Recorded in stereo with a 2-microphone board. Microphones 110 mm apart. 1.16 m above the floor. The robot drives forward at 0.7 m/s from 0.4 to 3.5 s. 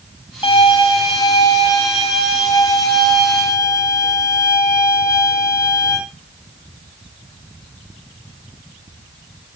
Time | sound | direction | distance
0.4 | a violin | 55° left (ahead or behind) | 3 m